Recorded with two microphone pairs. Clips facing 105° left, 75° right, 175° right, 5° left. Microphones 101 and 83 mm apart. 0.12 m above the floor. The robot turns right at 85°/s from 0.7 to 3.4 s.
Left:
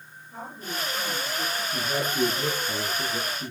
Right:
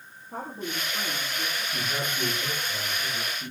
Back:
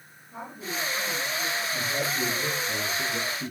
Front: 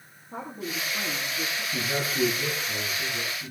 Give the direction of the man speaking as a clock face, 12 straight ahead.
11 o'clock.